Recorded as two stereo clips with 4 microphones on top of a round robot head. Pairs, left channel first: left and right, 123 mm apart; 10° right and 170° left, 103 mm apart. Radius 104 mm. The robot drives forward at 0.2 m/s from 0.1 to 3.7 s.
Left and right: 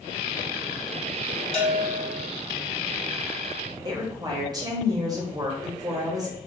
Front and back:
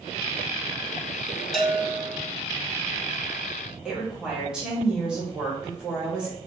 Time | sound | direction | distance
1.5 | a bell | 80° left | 0.8 m
3.9 | a woman speaking | 115° right | 0.9 m